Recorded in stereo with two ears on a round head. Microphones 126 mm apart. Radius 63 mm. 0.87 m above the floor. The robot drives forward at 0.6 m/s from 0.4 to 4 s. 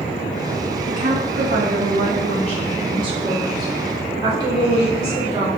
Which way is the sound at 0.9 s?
60° right (ahead or behind).